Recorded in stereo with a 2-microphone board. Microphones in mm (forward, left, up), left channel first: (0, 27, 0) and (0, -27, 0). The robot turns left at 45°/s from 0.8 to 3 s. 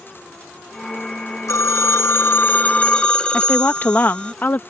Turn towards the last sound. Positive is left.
turn(degrees=35)  # may be behind; listen again after turning